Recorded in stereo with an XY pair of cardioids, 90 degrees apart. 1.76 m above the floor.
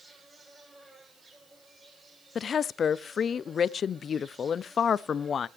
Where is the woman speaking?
55° left, 0.6 m.